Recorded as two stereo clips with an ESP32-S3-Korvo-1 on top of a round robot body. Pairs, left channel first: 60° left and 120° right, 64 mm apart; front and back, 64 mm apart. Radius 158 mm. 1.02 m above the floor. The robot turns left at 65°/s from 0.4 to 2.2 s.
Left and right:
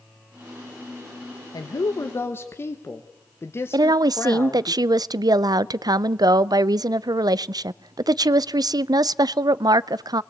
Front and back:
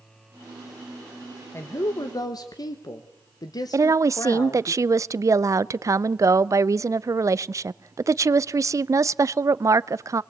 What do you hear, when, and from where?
1.5 s a woman speaking: 50° left, 1.4 m; by 4.7 s 5° left, 1.4 m
3.7 s a woman speaking: 140° right, 0.5 m